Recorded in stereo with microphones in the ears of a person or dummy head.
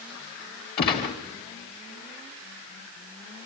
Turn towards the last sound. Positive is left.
turn(degrees=35)  # may be behind; listen again after turning